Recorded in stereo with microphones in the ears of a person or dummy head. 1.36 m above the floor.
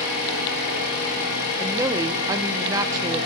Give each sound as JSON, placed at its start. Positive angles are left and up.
{"t": 0.0, "sound": "an engine running", "side_deg": 65, "distance_m": 4.5}
{"t": 1.6, "sound": "a woman speaking", "side_deg": -20, "distance_m": 0.6}